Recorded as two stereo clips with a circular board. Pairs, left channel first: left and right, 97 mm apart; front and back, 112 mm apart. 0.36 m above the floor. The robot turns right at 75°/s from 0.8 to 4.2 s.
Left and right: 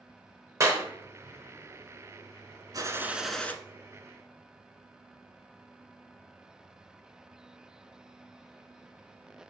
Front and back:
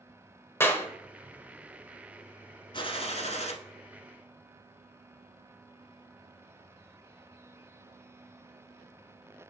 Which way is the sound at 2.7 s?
40° right.